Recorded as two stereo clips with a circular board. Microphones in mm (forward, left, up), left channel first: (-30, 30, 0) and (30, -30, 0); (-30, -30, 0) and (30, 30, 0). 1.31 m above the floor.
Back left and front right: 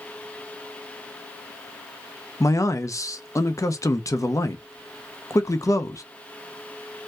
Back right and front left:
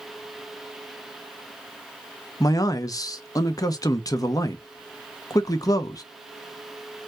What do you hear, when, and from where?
2.4 s a man speaking: straight behind, 0.6 m